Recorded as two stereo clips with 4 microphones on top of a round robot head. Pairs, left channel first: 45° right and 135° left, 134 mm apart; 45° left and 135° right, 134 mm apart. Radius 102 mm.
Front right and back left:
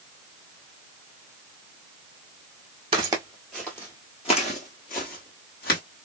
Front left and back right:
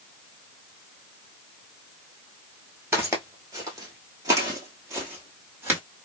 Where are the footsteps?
160° left, 0.9 m; by 5.8 s 65° right, 1.6 m.